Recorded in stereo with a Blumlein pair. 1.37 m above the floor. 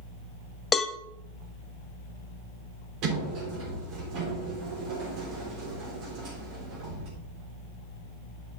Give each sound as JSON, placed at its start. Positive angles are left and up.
{"t": 0.7, "sound": "a cowbell", "azimuth_deg": 15, "distance_m": 0.7}
{"t": 3.0, "sound": "a sliding door", "azimuth_deg": -40, "distance_m": 3.5}